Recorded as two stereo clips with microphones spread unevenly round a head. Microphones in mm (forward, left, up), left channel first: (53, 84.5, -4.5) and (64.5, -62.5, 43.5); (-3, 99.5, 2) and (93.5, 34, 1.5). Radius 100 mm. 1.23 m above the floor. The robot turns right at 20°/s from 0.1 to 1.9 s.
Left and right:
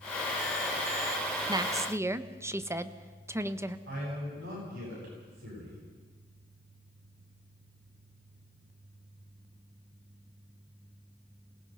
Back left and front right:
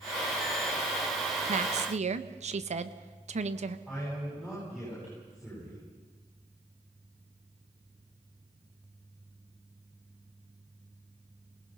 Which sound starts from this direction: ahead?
A woman speaking, at 1.5 s.